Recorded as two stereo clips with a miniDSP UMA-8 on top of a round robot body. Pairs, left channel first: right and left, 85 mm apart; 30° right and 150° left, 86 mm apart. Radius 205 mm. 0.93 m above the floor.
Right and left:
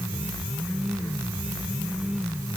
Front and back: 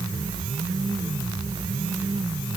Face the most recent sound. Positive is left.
No sound to turn to.